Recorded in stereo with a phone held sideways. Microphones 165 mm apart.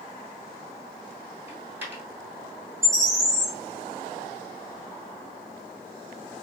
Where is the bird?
5° left (ahead or behind), 1.1 m.